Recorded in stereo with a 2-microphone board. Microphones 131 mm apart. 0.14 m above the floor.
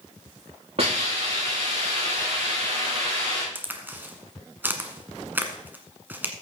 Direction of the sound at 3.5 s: 15° right (ahead or behind).